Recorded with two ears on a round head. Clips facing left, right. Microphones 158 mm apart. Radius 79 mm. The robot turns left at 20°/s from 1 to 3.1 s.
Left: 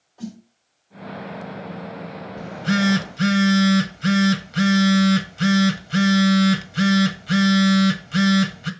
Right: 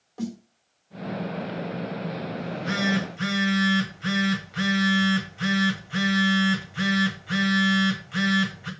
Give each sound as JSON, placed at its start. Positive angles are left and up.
{"t": 0.2, "sound": "a snare drum", "side_deg": -70, "distance_m": 2.0}
{"t": 2.4, "sound": "a phone buzzing", "side_deg": 35, "distance_m": 1.5}